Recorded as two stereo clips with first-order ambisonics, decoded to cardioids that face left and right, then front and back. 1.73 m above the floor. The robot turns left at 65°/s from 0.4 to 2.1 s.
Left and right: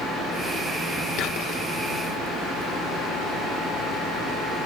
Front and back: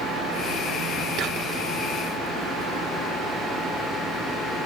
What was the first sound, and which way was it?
Whispering, 135° left.